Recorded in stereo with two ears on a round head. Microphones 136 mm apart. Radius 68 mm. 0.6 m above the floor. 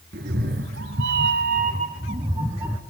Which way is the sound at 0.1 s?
70° right (ahead or behind).